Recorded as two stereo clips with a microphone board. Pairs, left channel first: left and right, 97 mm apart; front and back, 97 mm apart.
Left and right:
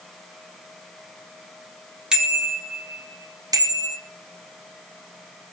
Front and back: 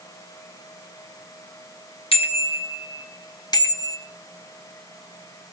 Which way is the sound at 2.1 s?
10° right.